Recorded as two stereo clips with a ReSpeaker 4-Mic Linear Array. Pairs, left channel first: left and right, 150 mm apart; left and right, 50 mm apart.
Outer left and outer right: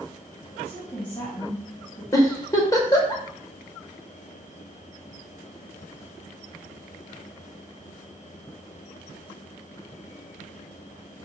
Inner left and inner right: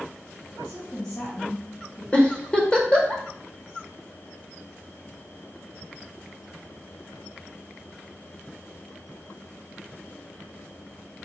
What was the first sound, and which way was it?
A woman speaking, 25° left (ahead or behind).